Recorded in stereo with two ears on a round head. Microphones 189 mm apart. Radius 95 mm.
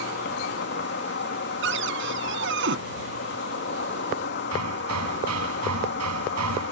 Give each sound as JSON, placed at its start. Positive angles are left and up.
{"t": 0.0, "sound": "an insect", "side_deg": 55}
{"t": 1.6, "sound": "a cupboard door", "side_deg": -60}
{"t": 4.5, "sound": "hammering", "side_deg": -90}